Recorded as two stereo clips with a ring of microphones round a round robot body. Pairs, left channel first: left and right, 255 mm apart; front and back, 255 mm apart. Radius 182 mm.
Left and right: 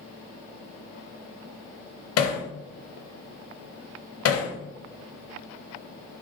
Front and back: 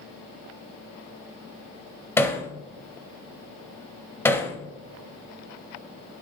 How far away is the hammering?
About 0.7 m.